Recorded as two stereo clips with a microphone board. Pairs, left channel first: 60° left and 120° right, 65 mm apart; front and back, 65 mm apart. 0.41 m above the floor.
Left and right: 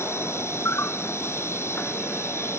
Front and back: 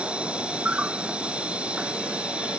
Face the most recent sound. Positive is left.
turn(degrees=110)